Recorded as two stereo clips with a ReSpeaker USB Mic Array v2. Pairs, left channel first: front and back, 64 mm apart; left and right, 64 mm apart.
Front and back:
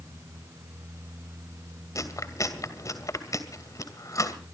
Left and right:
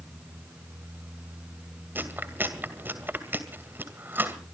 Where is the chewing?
30° right, 2.5 m.